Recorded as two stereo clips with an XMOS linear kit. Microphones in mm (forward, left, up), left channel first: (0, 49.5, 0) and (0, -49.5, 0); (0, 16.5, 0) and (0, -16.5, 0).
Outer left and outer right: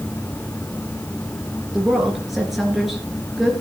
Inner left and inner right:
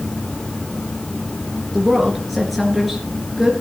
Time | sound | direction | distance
1.7 | a woman speaking | centre (ahead or behind) | 3.5 m